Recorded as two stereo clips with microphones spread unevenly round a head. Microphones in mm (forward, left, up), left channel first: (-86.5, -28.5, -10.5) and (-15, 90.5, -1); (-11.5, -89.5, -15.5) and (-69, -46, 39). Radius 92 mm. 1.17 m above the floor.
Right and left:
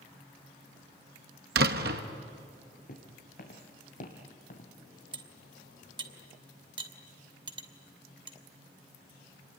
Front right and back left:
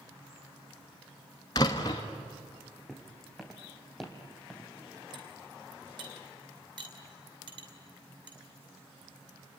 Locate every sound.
1.6 s a door slam: 35° left, 1.0 m
2.9 s footsteps: 140° right, 4 m; by 4.7 s 145° right, 2.5 m
5.1 s cutlery clinking: 110° left, 2.5 m